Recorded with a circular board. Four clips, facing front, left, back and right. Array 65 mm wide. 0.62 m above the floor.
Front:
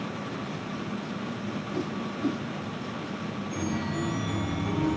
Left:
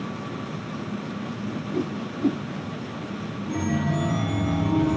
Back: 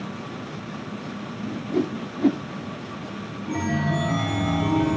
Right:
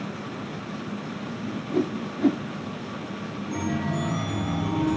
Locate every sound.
1.4 s a whoosh: 145° right, 1.1 m
3.5 s a chime: 175° left, 3.5 m